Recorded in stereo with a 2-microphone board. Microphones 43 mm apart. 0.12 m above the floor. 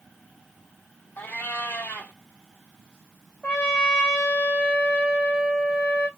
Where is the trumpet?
20° left (ahead or behind), 2.5 m.